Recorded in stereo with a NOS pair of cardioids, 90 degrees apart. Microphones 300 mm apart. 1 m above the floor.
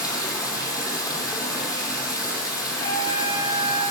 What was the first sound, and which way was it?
Running water, 10° left.